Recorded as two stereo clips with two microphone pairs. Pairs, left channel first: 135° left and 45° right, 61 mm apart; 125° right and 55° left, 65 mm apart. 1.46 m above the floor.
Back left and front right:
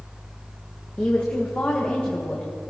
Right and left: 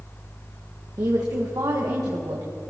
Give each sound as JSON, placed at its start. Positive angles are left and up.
{"t": 1.0, "sound": "a woman speaking", "azimuth_deg": 70, "distance_m": 1.5}